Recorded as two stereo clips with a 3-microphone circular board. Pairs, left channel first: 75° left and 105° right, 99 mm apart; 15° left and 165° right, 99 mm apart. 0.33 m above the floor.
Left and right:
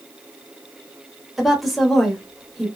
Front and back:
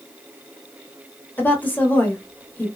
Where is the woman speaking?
15° right, 0.9 m.